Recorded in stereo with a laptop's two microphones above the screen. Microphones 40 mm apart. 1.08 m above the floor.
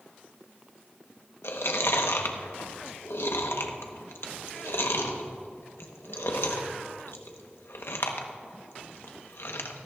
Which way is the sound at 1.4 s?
80° left.